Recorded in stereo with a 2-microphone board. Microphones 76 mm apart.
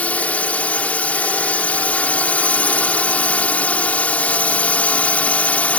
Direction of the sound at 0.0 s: 20° left (ahead or behind).